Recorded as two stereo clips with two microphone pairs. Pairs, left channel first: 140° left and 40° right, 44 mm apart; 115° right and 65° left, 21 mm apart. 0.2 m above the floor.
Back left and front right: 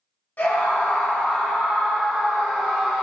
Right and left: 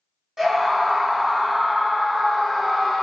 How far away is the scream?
About 1.4 m.